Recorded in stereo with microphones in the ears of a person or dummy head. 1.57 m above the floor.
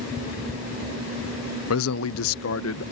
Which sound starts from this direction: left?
A man speaking, at 1.7 s.